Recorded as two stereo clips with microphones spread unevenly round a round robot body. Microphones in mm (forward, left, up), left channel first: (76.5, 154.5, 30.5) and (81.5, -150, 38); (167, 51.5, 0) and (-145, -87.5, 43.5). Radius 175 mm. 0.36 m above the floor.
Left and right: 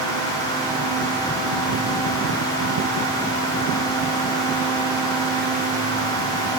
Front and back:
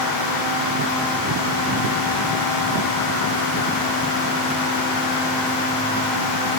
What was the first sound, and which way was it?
Only background noise.